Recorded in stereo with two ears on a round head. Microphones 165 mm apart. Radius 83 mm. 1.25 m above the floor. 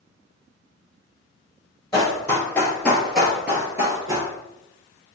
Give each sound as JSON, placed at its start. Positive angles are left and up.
{"t": 1.9, "sound": "running footsteps", "side_deg": 20, "distance_m": 1.7}